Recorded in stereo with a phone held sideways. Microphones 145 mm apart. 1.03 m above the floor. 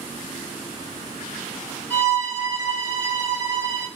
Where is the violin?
10° right (ahead or behind), 2 m.